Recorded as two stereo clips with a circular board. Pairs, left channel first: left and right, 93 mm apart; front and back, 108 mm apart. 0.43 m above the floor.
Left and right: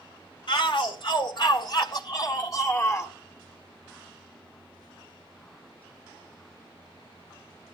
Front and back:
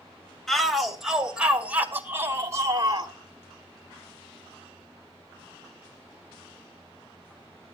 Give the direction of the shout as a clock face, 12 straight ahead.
9 o'clock.